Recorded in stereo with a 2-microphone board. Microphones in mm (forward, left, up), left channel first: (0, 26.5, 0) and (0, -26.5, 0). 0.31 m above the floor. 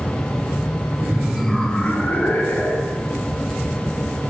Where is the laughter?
25° right (ahead or behind), 1.1 m; by 3.1 s 65° left (ahead or behind), 2 m.